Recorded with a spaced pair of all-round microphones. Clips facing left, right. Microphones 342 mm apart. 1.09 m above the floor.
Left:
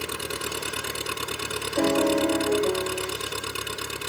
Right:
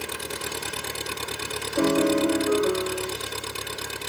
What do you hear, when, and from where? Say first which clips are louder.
0.0 s an engine running: left 1 dB; 15° left (ahead or behind)
1.8 s a piano: right 1 dB; 10° right (ahead or behind)